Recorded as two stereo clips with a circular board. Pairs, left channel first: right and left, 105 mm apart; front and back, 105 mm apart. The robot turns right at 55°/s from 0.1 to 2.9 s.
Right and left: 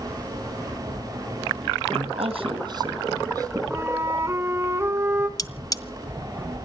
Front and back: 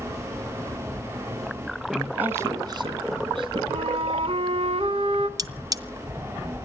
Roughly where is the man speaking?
Left.